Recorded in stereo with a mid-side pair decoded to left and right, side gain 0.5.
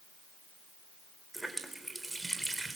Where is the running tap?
10° right, 3.5 m.